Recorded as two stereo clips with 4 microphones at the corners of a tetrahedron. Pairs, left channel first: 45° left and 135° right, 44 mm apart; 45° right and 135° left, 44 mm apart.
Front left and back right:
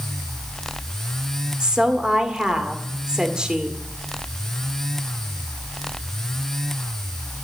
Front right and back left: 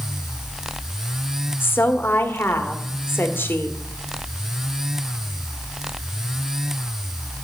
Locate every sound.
1.6 s a woman speaking: 65° right, 1.6 m